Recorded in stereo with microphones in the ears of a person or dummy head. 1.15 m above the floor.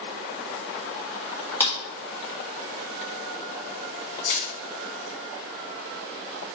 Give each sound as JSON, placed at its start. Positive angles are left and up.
{"t": 1.6, "sound": "a clap", "side_deg": 10, "distance_m": 2.0}
{"t": 4.3, "sound": "crushing", "side_deg": 70, "distance_m": 2.5}